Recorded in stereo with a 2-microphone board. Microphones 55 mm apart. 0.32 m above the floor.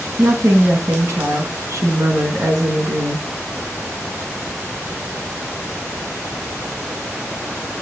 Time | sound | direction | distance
0.2 | a woman speaking | 65° right (ahead or behind) | 3.5 m